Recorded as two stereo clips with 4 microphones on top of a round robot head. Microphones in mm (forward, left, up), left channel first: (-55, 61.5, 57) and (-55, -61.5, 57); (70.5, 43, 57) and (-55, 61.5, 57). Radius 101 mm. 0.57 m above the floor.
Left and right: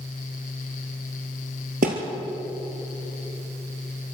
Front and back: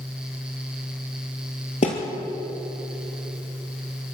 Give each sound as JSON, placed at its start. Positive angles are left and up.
{"t": 1.8, "sound": "a thud", "azimuth_deg": -60, "distance_m": 2.5}